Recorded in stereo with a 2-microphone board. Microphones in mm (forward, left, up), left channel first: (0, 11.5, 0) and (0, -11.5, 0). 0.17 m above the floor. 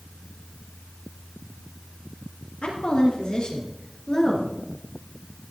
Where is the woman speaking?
45° left (ahead or behind), 4.5 m; by 4.6 s 15° left (ahead or behind), 3 m.